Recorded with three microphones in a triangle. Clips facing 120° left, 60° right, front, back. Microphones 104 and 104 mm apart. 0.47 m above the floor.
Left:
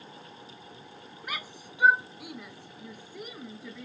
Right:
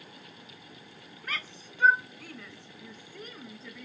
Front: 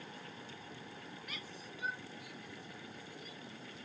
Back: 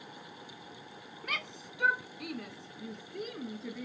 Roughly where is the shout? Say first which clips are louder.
Even, back 8 dB; behind.